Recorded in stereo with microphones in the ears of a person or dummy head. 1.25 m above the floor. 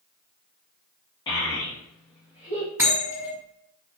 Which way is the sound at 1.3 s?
25° left (ahead or behind).